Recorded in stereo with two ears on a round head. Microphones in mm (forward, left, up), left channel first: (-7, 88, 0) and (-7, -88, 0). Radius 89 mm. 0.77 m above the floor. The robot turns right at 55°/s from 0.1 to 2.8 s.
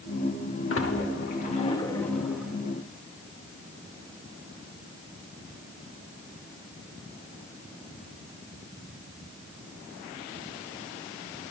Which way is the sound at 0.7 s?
75° left (ahead or behind).